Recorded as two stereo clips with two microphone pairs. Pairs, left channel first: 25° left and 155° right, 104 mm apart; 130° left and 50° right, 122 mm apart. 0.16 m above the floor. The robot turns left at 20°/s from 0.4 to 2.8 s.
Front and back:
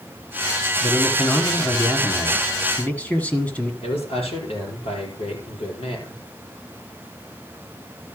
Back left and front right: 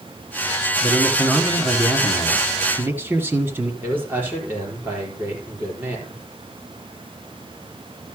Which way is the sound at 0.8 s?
25° left.